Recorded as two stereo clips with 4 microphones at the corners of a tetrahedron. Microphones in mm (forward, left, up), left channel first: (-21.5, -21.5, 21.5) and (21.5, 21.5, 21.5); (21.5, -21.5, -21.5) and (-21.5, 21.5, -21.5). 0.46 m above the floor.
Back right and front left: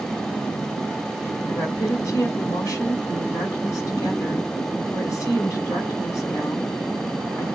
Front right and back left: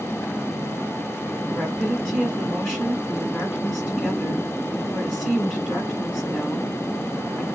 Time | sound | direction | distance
1.5 | a woman speaking | 150° right | 2 m